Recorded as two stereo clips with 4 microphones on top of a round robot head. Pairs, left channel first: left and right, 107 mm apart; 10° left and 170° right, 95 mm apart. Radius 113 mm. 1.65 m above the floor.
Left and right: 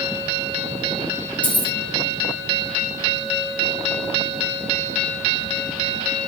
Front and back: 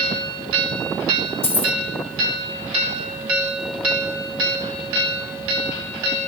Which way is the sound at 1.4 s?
15° left.